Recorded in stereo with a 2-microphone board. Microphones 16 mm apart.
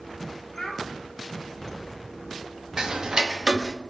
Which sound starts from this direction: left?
A child speaking, at 0.6 s.